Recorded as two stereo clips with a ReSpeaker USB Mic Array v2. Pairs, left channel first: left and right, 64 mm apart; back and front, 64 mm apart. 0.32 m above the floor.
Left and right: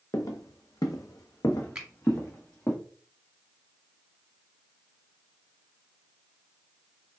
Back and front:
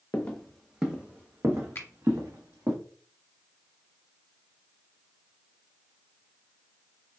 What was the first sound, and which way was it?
Footsteps, 110° left.